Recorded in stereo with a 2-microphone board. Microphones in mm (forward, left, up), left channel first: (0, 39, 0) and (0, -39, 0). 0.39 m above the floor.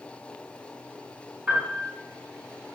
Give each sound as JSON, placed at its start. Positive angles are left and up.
{"t": 1.5, "sound": "a piano", "side_deg": -10, "distance_m": 0.9}